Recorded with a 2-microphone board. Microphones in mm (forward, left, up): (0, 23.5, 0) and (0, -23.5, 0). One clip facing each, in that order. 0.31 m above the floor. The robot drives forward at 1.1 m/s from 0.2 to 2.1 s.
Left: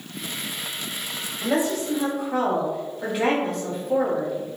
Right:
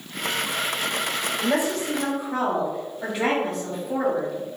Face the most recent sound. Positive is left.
turn(degrees=0)  # may be behind; listen again after turning